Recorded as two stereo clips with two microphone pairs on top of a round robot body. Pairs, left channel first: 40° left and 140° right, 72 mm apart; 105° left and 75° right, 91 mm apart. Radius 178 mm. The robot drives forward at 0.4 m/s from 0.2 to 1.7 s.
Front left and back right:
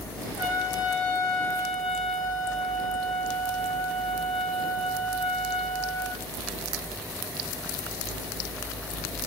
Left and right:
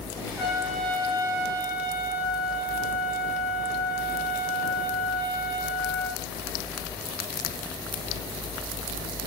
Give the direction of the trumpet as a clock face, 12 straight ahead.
11 o'clock.